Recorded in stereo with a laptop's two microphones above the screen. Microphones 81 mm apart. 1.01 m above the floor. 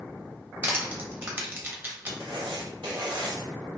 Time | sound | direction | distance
0.6 | crushing | 25° right (ahead or behind) | 1.4 m
2.2 | writing | 70° right (ahead or behind) | 1.4 m